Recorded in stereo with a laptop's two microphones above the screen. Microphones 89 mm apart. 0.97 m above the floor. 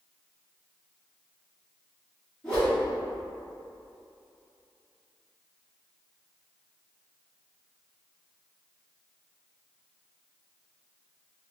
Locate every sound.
2.4 s a whoosh: 10° left (ahead or behind), 1.3 m